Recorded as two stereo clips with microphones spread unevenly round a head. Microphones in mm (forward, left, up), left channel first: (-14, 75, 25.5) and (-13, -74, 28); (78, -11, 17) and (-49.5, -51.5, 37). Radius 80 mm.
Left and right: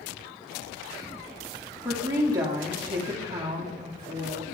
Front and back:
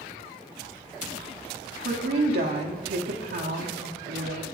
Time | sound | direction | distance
1.9 | a woman speaking | 155° right | 0.8 m